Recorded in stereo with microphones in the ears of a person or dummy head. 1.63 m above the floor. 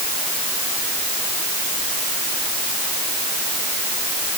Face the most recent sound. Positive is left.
No sound to turn to.